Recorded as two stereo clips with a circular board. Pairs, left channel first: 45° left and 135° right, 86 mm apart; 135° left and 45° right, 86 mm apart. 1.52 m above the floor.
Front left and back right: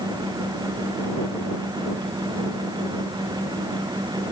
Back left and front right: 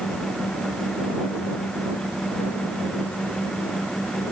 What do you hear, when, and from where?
Only background noise.